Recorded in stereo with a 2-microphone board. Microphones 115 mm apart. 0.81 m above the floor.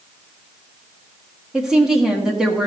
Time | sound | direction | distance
1.5 | a woman speaking | 5° right (ahead or behind) | 1.6 m